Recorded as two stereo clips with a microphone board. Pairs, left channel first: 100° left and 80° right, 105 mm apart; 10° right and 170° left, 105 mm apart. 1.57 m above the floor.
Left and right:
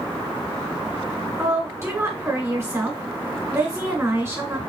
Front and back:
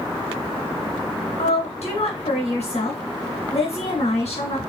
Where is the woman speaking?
10° right, 1.8 m.